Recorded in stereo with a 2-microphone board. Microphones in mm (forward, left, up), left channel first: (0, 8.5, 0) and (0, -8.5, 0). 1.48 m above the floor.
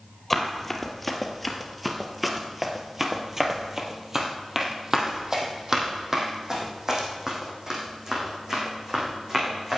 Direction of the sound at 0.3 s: 10° left (ahead or behind).